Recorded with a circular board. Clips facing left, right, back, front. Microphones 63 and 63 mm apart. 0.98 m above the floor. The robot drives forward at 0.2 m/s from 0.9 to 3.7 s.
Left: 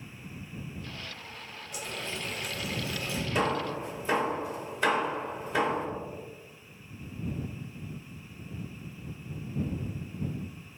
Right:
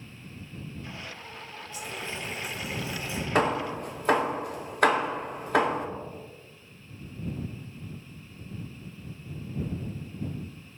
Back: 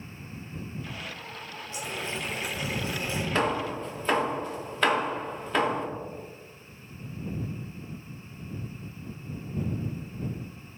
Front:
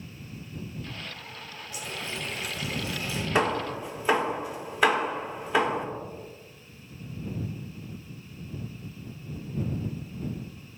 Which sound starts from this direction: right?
Hammering, at 3.4 s.